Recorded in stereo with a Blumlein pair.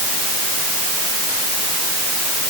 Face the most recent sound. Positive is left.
No sound to turn to.